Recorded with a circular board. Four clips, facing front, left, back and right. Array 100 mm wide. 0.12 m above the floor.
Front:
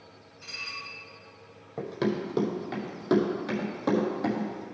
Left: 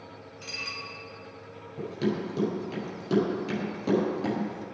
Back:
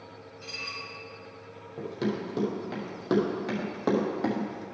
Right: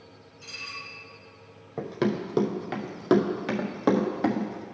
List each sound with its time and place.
0.4 s dishes clattering: 95° left, 2 m
1.8 s running footsteps: 70° right, 1.6 m; by 4.6 s 110° right, 2.5 m